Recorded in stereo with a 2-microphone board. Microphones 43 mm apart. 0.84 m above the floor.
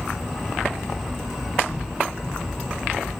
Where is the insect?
Centre (ahead or behind), 1.5 m.